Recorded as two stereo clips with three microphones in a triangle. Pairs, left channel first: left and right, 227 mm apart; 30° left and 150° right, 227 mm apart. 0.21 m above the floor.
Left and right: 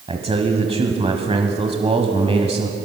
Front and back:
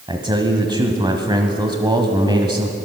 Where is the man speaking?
105° right, 1.1 m.